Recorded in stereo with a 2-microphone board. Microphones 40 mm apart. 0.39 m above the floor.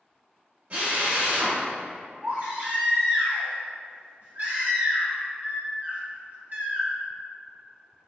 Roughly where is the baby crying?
Right.